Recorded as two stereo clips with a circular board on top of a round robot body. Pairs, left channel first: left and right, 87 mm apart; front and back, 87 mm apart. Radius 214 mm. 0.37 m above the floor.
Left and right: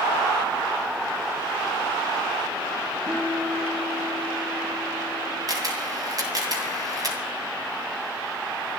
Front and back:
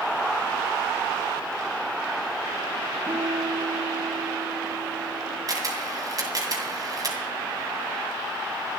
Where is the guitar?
125° right, 8 m.